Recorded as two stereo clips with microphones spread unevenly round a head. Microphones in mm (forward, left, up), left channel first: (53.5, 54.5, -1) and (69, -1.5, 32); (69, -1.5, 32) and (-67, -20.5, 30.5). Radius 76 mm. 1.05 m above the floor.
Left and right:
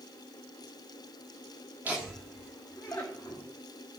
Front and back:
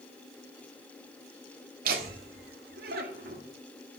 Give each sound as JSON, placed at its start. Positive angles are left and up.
{"t": 1.9, "sound": "laughter", "azimuth_deg": -155, "distance_m": 1.8}